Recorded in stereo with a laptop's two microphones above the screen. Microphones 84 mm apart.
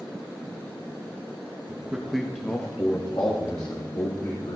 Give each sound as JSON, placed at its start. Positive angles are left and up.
{"t": 1.7, "sound": "a man speaking", "side_deg": -25, "distance_m": 1.6}